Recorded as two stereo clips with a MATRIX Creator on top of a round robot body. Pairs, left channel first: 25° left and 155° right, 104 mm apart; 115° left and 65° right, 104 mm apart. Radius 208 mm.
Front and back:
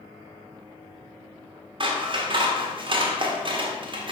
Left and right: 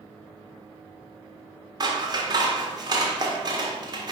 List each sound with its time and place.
1.8 s scissors: 120° right, 0.8 m